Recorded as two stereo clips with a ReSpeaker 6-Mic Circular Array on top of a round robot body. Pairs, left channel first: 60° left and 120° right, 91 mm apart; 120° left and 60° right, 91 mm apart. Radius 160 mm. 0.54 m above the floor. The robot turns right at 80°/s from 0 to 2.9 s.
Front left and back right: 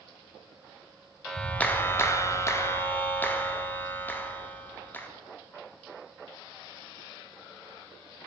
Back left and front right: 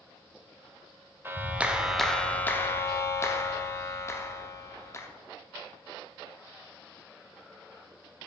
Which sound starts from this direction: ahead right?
A clap, at 1.2 s.